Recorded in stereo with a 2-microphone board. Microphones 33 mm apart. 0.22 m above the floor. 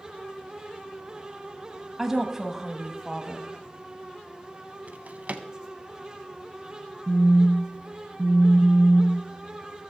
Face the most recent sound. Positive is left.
turn(degrees=-45)  # may be behind; listen again after turning